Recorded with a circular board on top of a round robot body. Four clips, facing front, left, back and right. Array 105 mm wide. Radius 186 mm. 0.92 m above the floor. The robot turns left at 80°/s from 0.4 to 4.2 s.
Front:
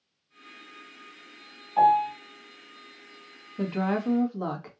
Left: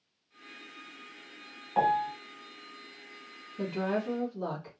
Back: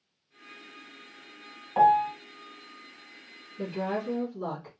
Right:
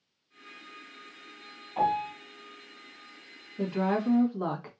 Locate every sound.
1.8 s a piano: 145° left, 1.5 m; by 2.1 s 115° left, 1.5 m
3.6 s a woman speaking: straight ahead, 1.6 m; by 4.7 s 50° right, 1.6 m